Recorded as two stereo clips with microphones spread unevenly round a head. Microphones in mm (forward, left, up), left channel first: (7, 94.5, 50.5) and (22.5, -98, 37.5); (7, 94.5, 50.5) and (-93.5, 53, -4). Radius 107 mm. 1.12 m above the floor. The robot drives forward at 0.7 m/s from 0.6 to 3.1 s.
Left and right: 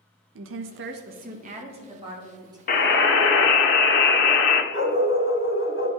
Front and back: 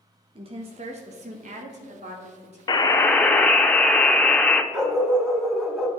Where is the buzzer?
50° left, 0.6 m; by 4.6 s 80° left, 0.5 m.